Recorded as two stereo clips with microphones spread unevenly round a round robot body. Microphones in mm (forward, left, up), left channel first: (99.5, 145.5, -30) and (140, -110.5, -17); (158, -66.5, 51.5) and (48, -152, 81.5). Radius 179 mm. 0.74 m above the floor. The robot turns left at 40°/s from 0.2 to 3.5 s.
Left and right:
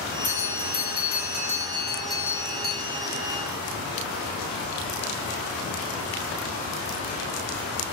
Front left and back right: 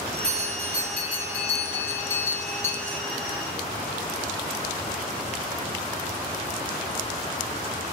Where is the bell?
115° left, 1.2 m; by 3.0 s 5° left, 1.2 m.